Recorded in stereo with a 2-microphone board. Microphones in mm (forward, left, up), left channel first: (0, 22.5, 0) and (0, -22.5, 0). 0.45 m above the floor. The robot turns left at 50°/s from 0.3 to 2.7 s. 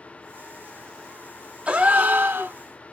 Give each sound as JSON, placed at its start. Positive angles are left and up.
{"t": 1.7, "sound": "a gasp", "azimuth_deg": -30, "distance_m": 0.8}